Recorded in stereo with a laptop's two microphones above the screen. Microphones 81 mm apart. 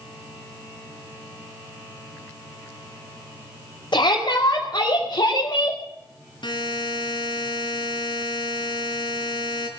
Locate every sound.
3.9 s a shout: 70° left (ahead or behind), 3 m
6.4 s a buzzer: 70° left (ahead or behind), 2 m